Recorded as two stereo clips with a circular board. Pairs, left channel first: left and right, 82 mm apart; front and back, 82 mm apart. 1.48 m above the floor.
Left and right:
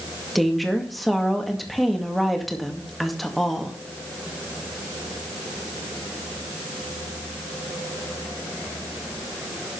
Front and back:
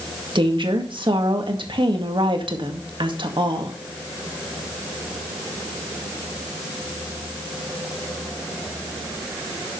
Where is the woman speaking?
Straight behind, 2 m.